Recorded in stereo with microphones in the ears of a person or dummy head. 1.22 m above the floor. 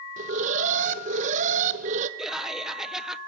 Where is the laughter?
5° right (ahead or behind), 0.8 m.